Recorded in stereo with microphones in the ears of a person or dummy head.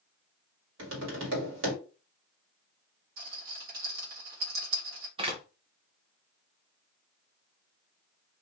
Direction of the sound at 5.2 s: 25° right (ahead or behind).